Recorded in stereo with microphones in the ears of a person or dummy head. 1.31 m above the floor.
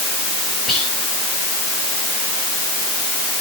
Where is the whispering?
5° left (ahead or behind), 7.5 m.